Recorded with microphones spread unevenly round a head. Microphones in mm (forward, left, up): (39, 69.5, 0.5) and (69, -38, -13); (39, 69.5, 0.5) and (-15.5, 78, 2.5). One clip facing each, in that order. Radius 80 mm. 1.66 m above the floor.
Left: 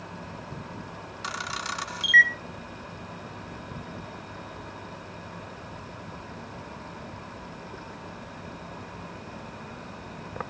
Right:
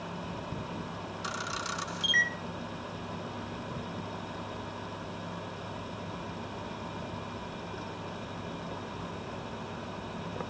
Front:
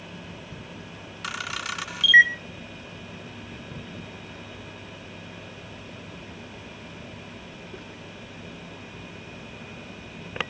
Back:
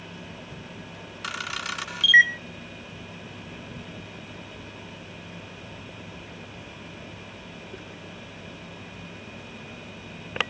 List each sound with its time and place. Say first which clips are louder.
1.2 s a camera shutter: left 4 dB, even; 80° left, 1.5 m